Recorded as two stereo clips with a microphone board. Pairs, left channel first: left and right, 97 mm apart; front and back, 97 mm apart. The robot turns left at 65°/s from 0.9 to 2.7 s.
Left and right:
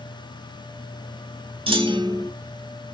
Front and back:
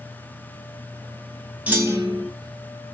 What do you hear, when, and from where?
1.7 s a clunk: 105° right, 1.1 m; by 2.3 s 145° right, 1.1 m